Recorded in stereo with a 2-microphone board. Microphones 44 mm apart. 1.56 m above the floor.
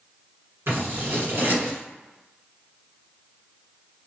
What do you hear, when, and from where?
0.7 s scissors: 55° right (ahead or behind), 1.6 m